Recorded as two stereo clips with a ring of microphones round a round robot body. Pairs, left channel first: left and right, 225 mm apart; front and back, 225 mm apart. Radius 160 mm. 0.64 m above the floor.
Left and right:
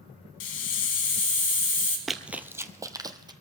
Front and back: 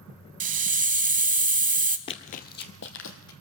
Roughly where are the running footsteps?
Ahead.